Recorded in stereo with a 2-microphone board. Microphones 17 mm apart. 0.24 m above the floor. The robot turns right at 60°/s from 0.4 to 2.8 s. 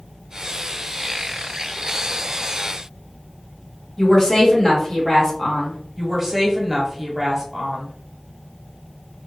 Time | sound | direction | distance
4.0 | a woman speaking | 20° left (ahead or behind) | 1.1 m
6.0 | a woman speaking | 25° right (ahead or behind) | 1.0 m